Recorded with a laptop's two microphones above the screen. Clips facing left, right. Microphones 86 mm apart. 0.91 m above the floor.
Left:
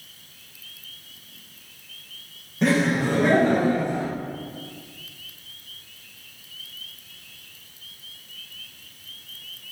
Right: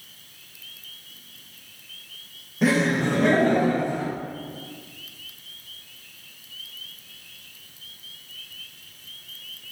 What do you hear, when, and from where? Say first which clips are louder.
2.6 s laughter: even; 5° right (ahead or behind), 0.5 m; by 4.1 s 20° left (ahead or behind), 1.3 m